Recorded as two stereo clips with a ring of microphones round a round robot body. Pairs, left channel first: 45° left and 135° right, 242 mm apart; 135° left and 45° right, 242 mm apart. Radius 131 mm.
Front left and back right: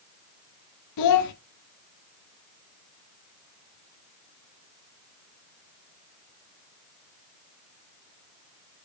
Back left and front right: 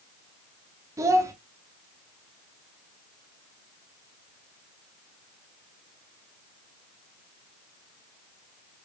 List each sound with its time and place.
1.0 s a child speaking: 35° left, 0.6 m